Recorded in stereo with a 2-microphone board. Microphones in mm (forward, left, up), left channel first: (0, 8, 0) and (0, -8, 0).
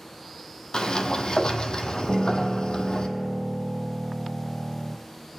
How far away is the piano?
About 0.8 m.